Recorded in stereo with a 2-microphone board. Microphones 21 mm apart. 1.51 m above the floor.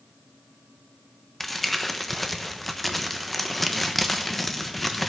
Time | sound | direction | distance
1.4 | crumpling | 5° left (ahead or behind) | 1.1 m